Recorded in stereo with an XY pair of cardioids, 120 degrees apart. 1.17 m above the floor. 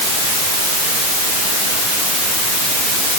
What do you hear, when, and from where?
Only background noise.